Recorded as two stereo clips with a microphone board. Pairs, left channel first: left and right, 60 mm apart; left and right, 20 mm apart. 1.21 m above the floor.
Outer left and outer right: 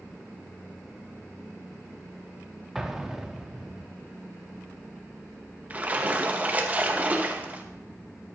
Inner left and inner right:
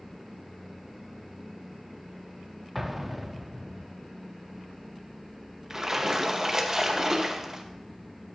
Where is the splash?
25° right (ahead or behind), 1.0 m.